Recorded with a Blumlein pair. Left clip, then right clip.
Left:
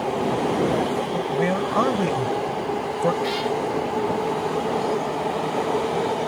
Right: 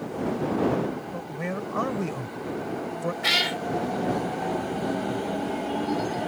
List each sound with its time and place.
1.1 s a man speaking: 20° left
3.2 s a cat meowing: 30° right